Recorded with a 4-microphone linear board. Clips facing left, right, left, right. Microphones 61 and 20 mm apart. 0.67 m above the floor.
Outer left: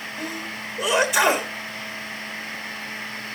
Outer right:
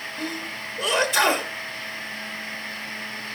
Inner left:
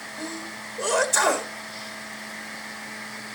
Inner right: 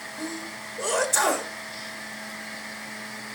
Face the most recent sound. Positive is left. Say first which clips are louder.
# even, even
turn(degrees=5)  # may be behind; listen again after turning